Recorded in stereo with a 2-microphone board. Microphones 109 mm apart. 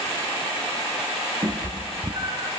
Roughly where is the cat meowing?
Right.